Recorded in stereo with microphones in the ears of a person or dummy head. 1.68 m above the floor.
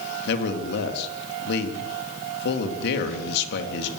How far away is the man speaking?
About 3.5 m.